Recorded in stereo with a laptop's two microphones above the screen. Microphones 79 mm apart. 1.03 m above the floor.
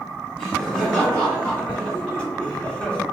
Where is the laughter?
10° left (ahead or behind), 1.8 m; by 3.0 s 15° left (ahead or behind), 0.7 m.